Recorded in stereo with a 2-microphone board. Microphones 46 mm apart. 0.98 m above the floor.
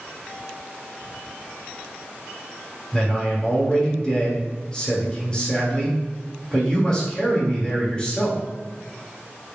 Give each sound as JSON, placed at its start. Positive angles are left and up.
{"t": 2.9, "sound": "a man speaking", "side_deg": 25, "distance_m": 2.0}